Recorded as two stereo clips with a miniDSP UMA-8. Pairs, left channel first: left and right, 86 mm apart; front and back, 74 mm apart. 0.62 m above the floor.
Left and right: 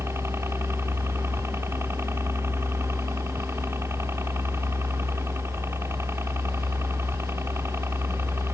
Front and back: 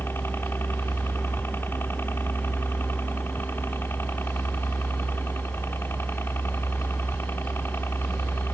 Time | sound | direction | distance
0.0 | a helicopter | 45° right | ?